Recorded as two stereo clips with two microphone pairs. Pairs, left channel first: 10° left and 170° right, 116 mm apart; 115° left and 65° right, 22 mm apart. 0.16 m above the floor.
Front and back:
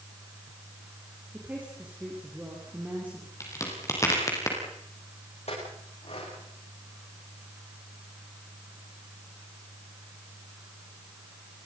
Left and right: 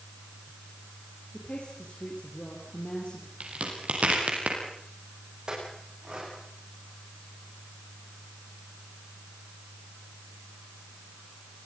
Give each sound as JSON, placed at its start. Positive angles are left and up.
{"t": 1.3, "sound": "a woman speaking", "azimuth_deg": 115, "distance_m": 5.0}
{"t": 3.4, "sound": "a crack", "azimuth_deg": -50, "distance_m": 5.0}
{"t": 5.5, "sound": "a clink", "azimuth_deg": -10, "distance_m": 9.0}